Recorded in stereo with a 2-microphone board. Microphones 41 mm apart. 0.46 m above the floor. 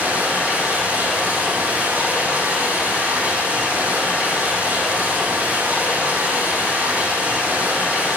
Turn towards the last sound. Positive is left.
turn(degrees=-40)  # may be behind; listen again after turning